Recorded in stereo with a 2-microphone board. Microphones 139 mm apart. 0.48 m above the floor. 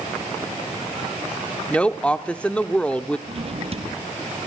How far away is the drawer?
About 3.5 m.